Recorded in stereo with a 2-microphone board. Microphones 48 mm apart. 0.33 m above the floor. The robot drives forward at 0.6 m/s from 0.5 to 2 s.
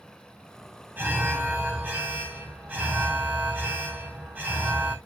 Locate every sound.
1.0 s an alarm: 45° right (ahead or behind), 2.5 m; by 5.0 s 40° right (ahead or behind), 3 m